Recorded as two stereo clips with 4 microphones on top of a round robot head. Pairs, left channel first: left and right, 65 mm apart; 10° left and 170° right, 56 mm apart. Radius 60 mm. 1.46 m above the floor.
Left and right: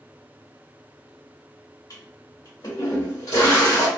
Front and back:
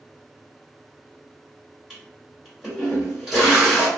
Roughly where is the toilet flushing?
Left.